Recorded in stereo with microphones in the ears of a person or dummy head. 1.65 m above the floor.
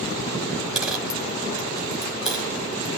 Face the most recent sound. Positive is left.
turn(degrees=0)  # may be behind; listen again after turning